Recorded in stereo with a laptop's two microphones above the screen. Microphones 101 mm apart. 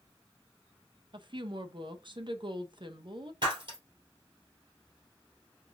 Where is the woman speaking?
50° right (ahead or behind), 0.6 m.